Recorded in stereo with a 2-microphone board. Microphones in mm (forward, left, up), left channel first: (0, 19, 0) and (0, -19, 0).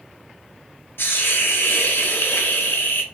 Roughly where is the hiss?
Left.